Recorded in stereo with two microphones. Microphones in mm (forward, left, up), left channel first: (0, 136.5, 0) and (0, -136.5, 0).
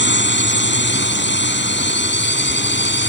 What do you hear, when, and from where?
0.0 s a drone: 40° left (ahead or behind)